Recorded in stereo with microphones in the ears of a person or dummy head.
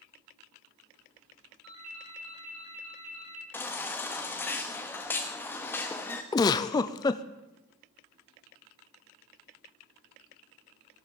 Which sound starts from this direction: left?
A giggle, at 6.3 s.